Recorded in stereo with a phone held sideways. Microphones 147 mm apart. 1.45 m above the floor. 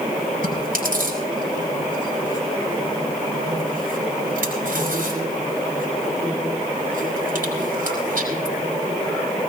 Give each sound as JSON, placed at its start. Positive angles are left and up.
{"t": 0.4, "sound": "chewing", "side_deg": -75, "distance_m": 5.5}